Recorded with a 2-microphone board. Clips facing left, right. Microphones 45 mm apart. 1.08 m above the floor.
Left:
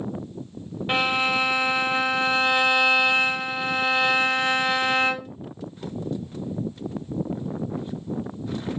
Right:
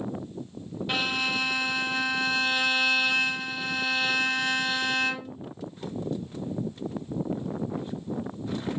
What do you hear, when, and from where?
0.9 s a violin: 30° left (ahead or behind), 0.5 m